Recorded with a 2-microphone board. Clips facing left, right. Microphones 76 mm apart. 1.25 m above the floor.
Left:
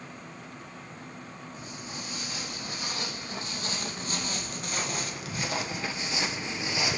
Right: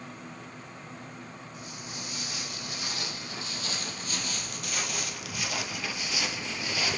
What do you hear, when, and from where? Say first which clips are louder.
1.5 s footsteps: left 2 dB; 30° left (ahead or behind), 3 m; by 7.0 s 20° left (ahead or behind), 1.3 m